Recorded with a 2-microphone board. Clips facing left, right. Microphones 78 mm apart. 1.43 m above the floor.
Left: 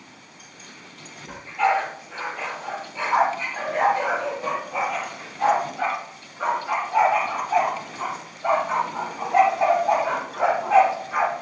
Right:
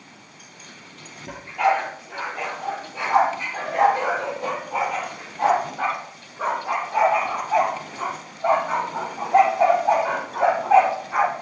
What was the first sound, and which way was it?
A dog barking, 75° right (ahead or behind).